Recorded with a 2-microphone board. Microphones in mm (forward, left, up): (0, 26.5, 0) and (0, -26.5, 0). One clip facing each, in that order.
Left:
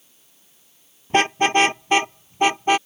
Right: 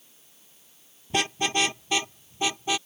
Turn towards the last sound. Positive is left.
turn(degrees=45)  # may be behind; listen again after turning